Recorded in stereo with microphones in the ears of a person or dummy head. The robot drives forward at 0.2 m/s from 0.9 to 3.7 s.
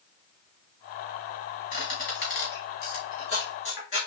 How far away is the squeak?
About 2.5 m.